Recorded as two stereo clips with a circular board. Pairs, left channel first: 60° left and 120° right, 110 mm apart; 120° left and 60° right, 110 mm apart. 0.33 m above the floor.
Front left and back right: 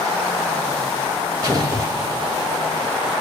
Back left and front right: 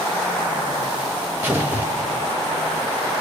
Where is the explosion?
115° right, 1.0 m.